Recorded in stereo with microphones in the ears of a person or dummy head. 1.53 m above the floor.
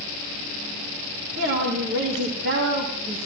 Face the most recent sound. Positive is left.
turn(degrees=-65)  # may be behind; listen again after turning